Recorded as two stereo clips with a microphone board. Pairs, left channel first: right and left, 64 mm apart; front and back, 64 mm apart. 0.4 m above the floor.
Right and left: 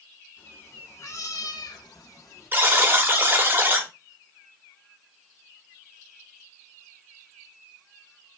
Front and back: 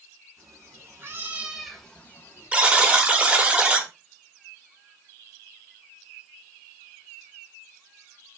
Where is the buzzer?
120° left, 0.7 m.